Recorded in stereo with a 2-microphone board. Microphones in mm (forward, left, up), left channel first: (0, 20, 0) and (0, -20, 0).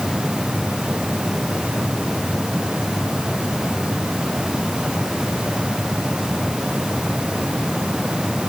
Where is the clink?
I don't hear a clink.